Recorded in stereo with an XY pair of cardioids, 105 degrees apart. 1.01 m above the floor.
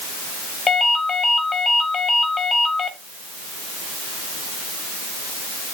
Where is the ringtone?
40° left, 2 m.